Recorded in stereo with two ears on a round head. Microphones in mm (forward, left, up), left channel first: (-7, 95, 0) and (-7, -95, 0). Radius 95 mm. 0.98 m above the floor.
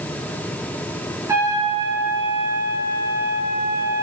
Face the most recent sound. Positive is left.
turn(degrees=-15)  # may be behind; listen again after turning